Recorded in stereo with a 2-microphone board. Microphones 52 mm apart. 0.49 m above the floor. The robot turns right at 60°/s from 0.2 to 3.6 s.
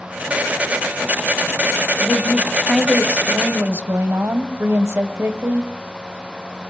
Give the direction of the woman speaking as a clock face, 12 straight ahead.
7 o'clock.